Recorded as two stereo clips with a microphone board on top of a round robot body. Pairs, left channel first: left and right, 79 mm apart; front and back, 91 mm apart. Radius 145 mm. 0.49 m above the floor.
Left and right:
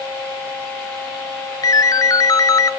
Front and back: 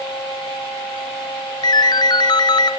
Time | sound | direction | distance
1.6 | a ringtone | 45° left | 0.9 m